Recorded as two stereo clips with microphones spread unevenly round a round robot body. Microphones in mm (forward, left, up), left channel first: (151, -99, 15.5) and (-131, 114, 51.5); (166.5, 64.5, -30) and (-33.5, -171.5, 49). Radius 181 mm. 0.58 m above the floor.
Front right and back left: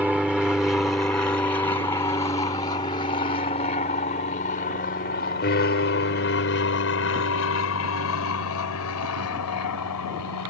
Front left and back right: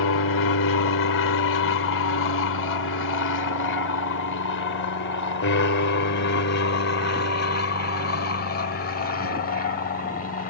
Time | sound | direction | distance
0.0 | an aircraft | 55° left | ?